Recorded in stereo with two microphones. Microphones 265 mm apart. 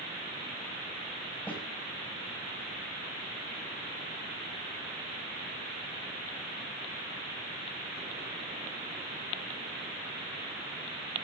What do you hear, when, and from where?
1.5 s a snare drum: 5° left (ahead or behind), 6.5 m